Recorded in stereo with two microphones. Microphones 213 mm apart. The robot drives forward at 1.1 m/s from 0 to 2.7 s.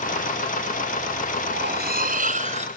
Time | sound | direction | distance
1.5 | cutlery clinking | 55° right (ahead or behind) | 1.5 m